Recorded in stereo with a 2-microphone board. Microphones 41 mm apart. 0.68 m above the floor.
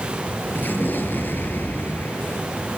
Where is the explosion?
60° left (ahead or behind), 5.5 m.